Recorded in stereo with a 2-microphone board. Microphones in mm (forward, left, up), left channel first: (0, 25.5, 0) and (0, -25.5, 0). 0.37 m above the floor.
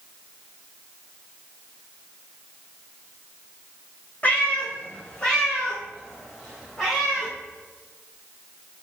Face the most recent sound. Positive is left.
turn(degrees=0)  # may be behind; listen again after turning